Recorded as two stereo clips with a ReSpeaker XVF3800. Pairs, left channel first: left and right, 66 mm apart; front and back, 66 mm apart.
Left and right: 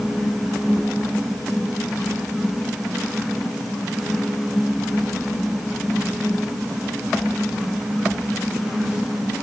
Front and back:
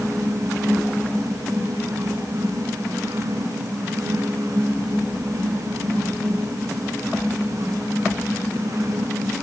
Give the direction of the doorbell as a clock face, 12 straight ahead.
No doorbell in this recording.